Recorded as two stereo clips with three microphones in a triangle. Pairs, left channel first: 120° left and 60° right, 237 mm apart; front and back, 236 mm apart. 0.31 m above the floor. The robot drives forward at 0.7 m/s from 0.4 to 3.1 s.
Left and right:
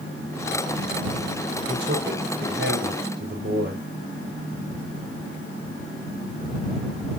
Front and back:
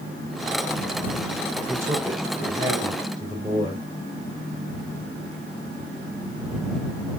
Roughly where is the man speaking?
Right.